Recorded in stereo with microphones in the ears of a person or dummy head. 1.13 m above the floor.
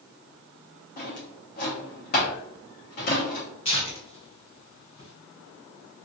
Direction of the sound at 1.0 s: 55° left (ahead or behind).